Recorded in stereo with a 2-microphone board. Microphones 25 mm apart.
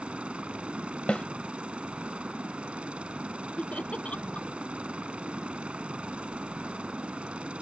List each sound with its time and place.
0.0 s a helicopter: 45° right (ahead or behind)
1.1 s a snare drum: 45° left (ahead or behind)
3.6 s laughter: 60° left (ahead or behind)